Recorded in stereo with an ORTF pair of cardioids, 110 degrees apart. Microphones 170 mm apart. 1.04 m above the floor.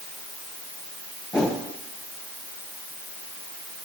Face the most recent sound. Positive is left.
turn(degrees=5)